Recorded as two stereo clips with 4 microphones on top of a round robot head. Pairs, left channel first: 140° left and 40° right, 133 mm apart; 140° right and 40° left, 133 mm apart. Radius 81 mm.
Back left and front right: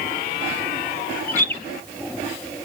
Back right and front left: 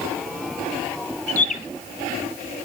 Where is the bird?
145° right, 1.0 m.